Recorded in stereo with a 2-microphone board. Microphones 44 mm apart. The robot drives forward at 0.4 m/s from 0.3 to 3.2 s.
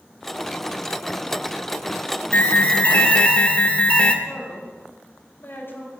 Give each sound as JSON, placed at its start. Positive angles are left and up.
{"t": 2.3, "sound": "an alarm", "side_deg": 45, "distance_m": 1.0}
{"t": 4.2, "sound": "a man speaking", "side_deg": 55, "distance_m": 4.5}